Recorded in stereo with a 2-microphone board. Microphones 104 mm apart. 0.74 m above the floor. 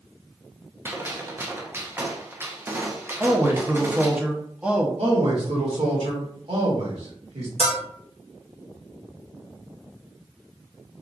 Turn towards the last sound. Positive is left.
turn(degrees=-80)